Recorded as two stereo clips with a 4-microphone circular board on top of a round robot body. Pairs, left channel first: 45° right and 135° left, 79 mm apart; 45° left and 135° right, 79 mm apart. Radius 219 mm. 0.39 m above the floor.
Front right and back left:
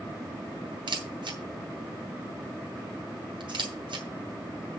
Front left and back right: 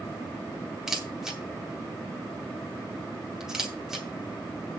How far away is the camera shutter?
About 2 m.